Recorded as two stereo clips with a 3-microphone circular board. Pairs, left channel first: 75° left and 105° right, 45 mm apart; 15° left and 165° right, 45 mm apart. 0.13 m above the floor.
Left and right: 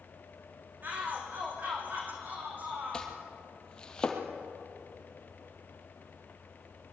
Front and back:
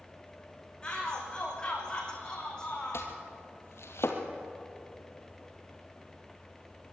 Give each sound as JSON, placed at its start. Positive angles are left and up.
{"t": 0.8, "sound": "a shout", "azimuth_deg": -55, "distance_m": 10.0}
{"t": 2.9, "sound": "chopping", "azimuth_deg": 0, "distance_m": 3.0}